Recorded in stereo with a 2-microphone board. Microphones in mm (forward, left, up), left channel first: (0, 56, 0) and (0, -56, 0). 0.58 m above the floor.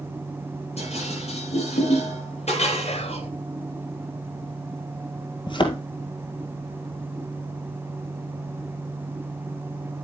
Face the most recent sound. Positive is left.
turn(degrees=45)  # may be behind; listen again after turning